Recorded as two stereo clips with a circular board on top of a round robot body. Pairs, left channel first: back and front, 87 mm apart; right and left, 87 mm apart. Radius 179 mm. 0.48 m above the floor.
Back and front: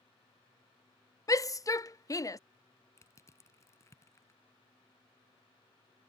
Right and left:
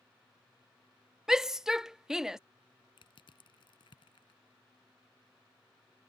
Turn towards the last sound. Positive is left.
turn(degrees=-120)